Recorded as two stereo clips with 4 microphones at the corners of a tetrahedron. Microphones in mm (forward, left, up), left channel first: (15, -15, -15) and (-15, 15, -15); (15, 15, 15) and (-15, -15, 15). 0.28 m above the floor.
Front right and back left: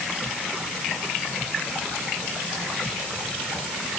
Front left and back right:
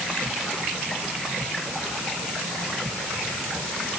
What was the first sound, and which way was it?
Only background noise.